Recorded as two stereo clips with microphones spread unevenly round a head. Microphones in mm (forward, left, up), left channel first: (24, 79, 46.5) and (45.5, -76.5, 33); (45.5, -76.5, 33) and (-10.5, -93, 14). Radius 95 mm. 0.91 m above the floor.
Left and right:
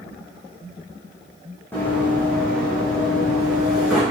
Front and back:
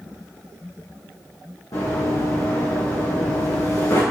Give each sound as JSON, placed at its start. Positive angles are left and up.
{"t": 1.7, "sound": "running footsteps", "azimuth_deg": 20, "distance_m": 3.5}